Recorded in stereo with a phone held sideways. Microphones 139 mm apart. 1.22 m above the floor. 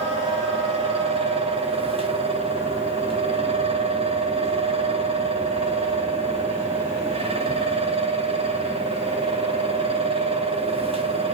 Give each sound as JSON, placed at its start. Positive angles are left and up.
{"t": 0.0, "sound": "a fan", "side_deg": -45, "distance_m": 0.9}